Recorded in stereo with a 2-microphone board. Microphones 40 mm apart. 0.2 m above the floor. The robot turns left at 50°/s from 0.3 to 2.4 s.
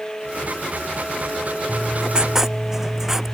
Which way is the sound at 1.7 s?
130° right.